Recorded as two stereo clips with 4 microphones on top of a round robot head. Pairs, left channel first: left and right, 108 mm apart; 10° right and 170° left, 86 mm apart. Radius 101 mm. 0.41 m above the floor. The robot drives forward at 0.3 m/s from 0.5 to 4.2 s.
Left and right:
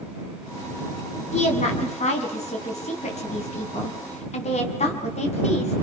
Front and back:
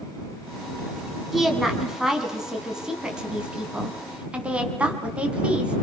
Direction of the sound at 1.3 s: 80° left.